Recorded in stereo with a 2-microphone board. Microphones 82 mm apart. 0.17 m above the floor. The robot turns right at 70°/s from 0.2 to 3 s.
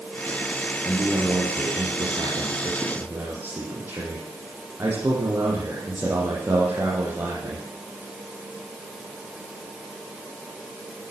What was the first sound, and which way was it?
A man speaking, 175° right.